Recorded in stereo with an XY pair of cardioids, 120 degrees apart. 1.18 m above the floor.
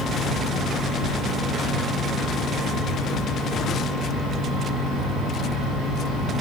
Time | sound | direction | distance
0.0 | a fan | 60° right | 7 m